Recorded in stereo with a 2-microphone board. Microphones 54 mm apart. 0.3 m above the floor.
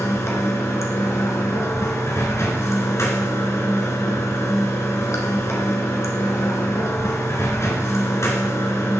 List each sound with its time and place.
0.0 s running water: 65° left (ahead or behind), 1.3 m